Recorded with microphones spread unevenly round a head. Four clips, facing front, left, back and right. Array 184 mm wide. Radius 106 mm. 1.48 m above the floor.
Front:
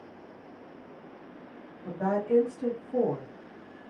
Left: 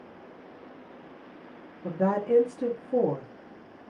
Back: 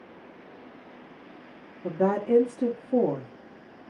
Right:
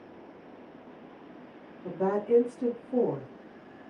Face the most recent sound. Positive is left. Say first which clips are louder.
# left 2 dB, back 4 dB
turn(degrees=150)